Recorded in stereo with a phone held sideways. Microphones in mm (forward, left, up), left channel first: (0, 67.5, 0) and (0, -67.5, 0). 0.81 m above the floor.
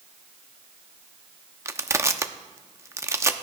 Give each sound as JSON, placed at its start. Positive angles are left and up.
{"t": 1.6, "sound": "crushing", "side_deg": -20, "distance_m": 0.6}